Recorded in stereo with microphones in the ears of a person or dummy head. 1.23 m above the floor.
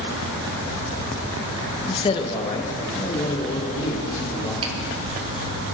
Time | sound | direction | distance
1.9 | a man speaking | 30° left (ahead or behind) | 0.7 m
4.6 | a finger snap | 30° right (ahead or behind) | 3 m